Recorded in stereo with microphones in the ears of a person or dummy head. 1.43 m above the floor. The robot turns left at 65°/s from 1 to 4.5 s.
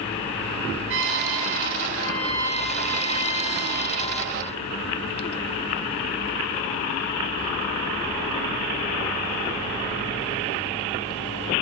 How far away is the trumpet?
About 7 m.